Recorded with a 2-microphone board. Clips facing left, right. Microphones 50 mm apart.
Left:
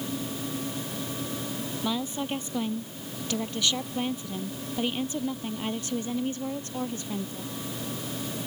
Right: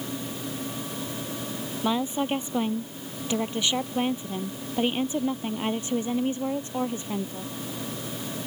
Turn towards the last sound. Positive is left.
turn(degrees=-20)  # may be behind; listen again after turning